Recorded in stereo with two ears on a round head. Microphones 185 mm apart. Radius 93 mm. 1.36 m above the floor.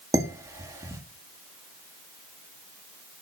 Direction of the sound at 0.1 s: 15° right (ahead or behind).